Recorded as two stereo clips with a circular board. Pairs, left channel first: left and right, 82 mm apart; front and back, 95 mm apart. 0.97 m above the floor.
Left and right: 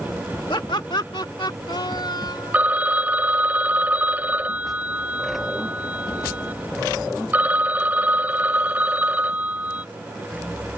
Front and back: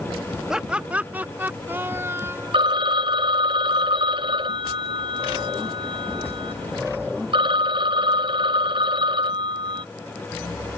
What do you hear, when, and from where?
0.5 s laughter: 95° left; by 2.7 s 120° left
2.5 s a phone ringing: 160° right